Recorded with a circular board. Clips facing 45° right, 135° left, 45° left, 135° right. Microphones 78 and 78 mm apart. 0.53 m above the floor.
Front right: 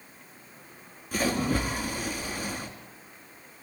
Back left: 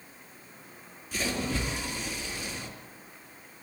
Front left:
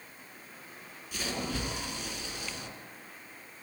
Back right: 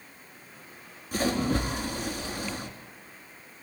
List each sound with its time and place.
1.1 s a splash: 85° right, 3.5 m